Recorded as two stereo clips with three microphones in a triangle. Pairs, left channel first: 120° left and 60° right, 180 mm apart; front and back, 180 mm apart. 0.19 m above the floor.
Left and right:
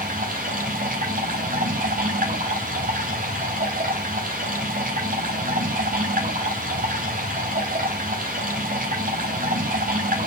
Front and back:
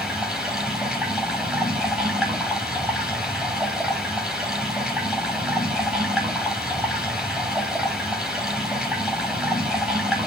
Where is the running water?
95° right, 6.5 m.